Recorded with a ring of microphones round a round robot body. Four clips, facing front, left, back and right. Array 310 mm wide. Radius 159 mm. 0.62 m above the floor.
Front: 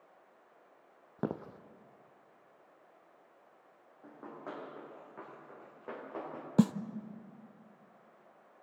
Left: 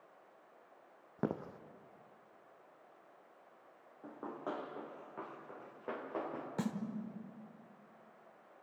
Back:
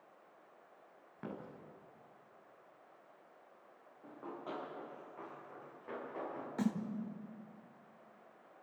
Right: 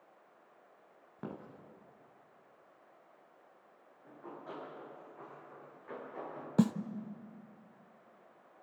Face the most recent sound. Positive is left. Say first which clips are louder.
# right 11 dB, front 9 dB
turn(degrees=-30)